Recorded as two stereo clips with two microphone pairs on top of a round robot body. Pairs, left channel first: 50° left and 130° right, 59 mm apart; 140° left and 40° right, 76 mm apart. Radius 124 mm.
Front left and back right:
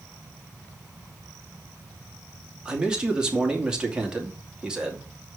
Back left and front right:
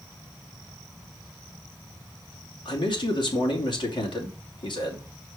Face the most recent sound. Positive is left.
turn(degrees=155)